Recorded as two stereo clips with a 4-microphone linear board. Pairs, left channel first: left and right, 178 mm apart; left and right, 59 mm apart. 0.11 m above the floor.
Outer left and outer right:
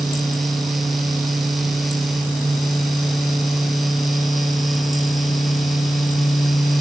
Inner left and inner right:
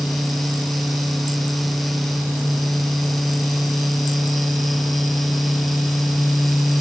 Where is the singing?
I don't hear singing.